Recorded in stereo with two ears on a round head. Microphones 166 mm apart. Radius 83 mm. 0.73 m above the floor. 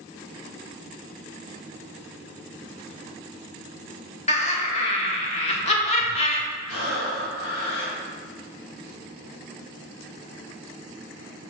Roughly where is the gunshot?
I don't hear a gunshot.